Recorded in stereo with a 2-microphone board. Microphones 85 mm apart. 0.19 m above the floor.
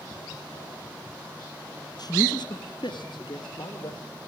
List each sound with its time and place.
2.0 s a man speaking: 55° left (ahead or behind), 2 m; by 4.0 s 70° left (ahead or behind), 5 m